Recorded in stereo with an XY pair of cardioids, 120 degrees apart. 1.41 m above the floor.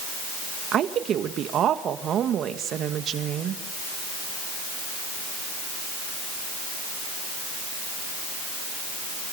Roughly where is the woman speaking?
Ahead right.